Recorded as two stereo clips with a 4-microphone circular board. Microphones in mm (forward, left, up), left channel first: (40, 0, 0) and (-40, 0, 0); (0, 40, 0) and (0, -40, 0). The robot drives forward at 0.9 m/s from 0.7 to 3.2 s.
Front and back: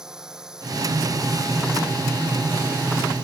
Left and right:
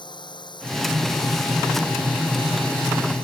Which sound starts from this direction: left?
A drone, at 0.0 s.